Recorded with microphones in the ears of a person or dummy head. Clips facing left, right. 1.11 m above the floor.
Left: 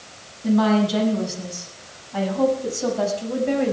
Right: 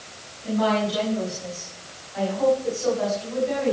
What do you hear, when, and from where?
0.4 s a woman speaking: 75° left (ahead or behind), 8 m; by 3.7 s 65° left (ahead or behind), 6 m